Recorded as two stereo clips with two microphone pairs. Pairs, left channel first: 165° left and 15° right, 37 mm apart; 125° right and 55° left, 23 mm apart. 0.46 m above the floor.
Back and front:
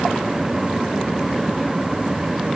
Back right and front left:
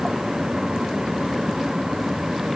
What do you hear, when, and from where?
Only background noise.